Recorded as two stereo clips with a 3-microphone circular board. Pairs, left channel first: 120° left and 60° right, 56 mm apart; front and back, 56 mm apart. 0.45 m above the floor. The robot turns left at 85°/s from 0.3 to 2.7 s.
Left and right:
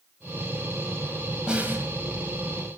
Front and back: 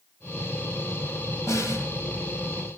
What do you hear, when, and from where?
1.5 s a snare drum: 15° left, 2 m; by 1.9 s 20° right, 2 m